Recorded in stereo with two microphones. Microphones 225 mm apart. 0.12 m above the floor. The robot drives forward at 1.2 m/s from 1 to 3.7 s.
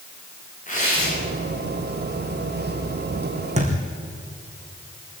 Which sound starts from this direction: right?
A thud, at 3.6 s.